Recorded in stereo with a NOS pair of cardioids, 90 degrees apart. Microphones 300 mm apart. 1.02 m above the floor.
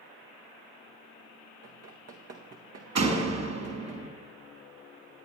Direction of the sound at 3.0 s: 60° right.